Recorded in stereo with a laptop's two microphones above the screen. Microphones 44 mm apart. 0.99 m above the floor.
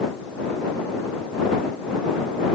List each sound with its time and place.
Only background noise.